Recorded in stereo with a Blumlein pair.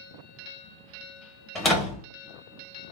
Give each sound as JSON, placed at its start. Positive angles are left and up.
{"t": 1.6, "sound": "a door slam", "azimuth_deg": 15, "distance_m": 1.7}